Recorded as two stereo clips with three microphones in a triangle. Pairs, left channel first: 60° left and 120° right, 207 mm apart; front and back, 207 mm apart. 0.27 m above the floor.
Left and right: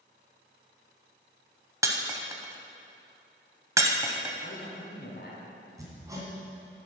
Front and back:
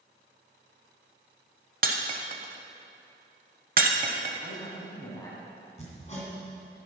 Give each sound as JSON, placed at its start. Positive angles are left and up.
{"t": 1.8, "sound": "breaking glass", "azimuth_deg": 175, "distance_m": 0.7}
{"t": 4.4, "sound": "a man speaking", "azimuth_deg": 70, "distance_m": 2.0}
{"t": 5.8, "sound": "hammering", "azimuth_deg": -50, "distance_m": 2.0}